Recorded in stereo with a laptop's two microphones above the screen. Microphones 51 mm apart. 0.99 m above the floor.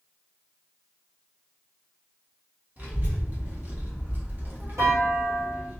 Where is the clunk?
75° right (ahead or behind), 1.2 m.